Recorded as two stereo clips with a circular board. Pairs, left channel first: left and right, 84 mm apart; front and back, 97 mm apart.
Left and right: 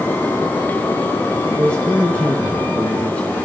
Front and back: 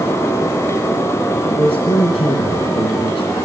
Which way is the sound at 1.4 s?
15° left.